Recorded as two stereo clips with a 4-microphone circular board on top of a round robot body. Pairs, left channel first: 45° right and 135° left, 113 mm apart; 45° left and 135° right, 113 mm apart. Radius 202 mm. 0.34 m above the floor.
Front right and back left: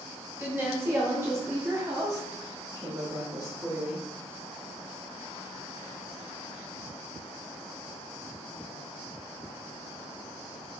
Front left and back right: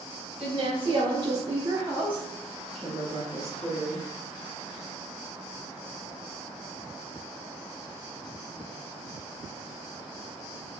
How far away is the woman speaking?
About 1.6 m.